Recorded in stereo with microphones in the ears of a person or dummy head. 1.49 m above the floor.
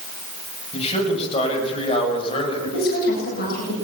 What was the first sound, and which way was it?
A man speaking, 25° left (ahead or behind).